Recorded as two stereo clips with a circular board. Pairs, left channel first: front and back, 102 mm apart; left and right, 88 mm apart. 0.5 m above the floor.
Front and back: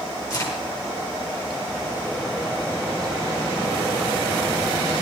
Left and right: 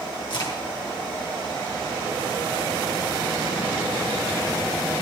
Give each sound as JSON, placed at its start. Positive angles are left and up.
{"t": 0.3, "sound": "a crack", "azimuth_deg": 60, "distance_m": 8.0}